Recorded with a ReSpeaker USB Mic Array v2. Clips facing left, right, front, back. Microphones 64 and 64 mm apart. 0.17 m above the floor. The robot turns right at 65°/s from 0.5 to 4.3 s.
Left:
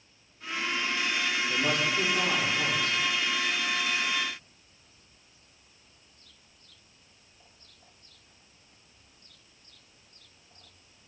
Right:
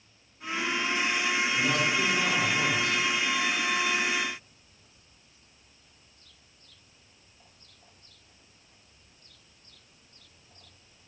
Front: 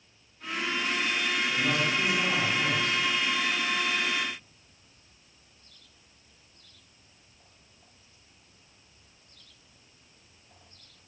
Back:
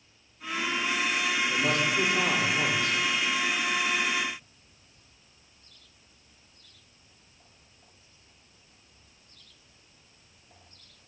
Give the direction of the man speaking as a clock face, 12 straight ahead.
8 o'clock.